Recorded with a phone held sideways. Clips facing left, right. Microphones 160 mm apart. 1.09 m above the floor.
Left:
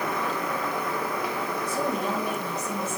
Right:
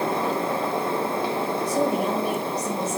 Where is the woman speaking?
80° right, 6.5 m.